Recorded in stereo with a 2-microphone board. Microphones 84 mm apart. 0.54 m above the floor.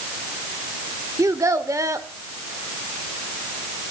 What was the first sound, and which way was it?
A child speaking, 40° right (ahead or behind).